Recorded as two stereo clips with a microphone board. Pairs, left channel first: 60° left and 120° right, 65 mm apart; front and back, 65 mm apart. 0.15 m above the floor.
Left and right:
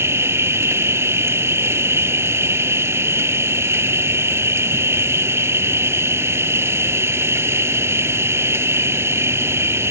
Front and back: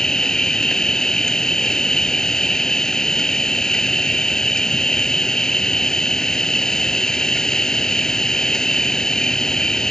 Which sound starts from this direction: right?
An insect, at 0.0 s.